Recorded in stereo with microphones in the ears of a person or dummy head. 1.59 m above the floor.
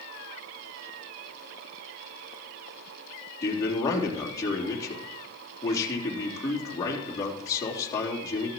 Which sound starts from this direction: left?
A man speaking, at 3.4 s.